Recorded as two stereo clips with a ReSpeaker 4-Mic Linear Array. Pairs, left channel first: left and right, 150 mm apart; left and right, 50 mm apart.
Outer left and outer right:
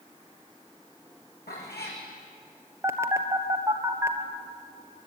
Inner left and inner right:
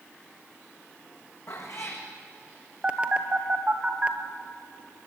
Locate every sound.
1.5 s a cat meowing: 85° left, 5 m
2.8 s a phone buzzing: 20° right (ahead or behind), 1.3 m